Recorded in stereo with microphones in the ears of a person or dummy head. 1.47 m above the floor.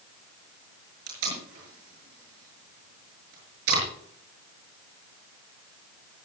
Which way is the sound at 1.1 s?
80° right.